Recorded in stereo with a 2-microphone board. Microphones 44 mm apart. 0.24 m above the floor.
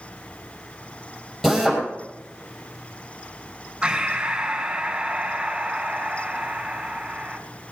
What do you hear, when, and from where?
1.4 s a drill: 5° left (ahead or behind), 5.5 m
3.8 s breathing: 15° right (ahead or behind), 3 m